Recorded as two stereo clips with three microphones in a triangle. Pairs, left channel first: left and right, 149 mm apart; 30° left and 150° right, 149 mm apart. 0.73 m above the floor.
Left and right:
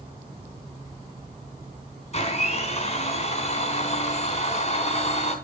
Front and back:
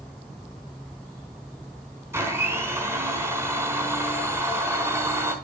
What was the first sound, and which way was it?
A blender, 135° left.